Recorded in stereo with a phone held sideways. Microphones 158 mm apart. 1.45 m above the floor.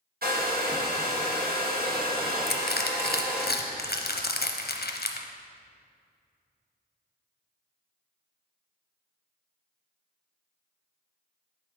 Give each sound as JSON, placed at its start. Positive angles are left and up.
{"t": 0.2, "sound": "a hair dryer", "side_deg": -75, "distance_m": 1.1}
{"t": 2.5, "sound": "crushing", "side_deg": 85, "distance_m": 0.6}